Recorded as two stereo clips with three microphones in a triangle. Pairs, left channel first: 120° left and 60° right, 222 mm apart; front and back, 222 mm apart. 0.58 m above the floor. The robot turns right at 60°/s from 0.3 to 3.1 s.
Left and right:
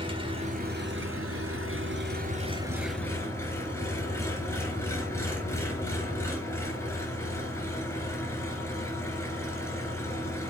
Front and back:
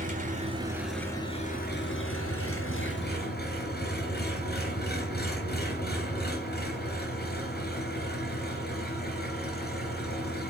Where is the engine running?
125° right, 3 m; by 10.5 s 40° left, 3 m.